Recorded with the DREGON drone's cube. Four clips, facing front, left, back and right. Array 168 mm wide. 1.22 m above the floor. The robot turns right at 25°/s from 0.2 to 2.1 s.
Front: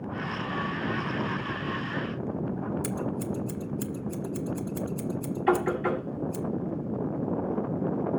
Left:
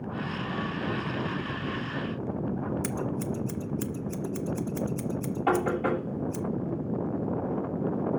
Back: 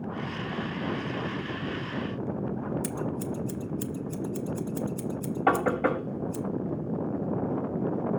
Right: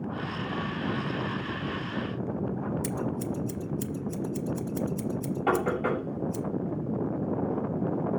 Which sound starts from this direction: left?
Scissors, at 2.8 s.